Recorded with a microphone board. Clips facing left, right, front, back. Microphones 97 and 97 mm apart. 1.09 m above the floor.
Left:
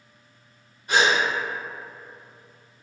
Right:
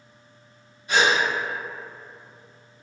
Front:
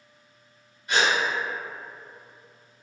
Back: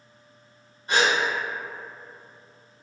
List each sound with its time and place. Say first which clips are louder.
0.9 s a gasp: even, back 1 dB; 125° left, 1.5 m